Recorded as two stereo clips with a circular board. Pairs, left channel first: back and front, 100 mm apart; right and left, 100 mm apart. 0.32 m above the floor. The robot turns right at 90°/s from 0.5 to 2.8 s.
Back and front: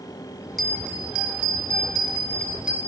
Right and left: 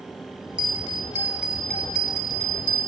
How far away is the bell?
About 1.4 m.